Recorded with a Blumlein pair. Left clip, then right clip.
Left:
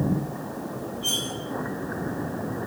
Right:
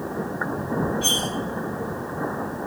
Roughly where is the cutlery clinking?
Ahead right.